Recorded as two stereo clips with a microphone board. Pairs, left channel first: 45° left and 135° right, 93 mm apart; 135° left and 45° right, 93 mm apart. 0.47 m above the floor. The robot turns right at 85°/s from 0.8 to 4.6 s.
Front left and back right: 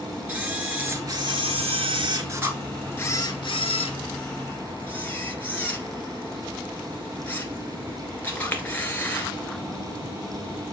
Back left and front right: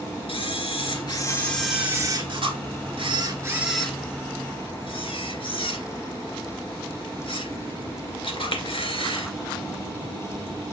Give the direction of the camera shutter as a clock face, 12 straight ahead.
7 o'clock.